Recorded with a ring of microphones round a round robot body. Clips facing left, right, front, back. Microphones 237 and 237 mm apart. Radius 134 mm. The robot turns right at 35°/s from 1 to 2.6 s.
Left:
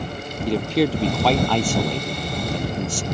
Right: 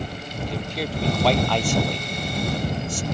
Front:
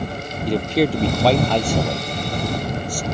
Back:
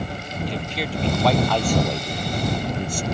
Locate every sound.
0.5 s a man speaking: 55° left; by 3.0 s 110° left